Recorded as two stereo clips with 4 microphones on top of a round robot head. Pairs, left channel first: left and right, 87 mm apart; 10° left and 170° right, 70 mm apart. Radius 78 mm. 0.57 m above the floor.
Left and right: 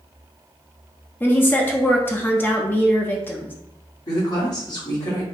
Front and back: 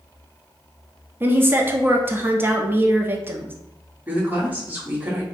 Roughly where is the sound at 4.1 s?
Behind left.